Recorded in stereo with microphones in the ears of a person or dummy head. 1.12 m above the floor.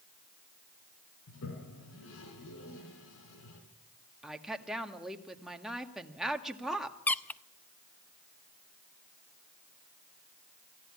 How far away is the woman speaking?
About 1.7 m.